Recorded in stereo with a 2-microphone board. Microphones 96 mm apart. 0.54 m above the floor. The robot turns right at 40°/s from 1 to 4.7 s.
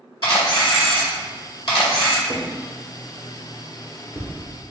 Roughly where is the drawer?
Right.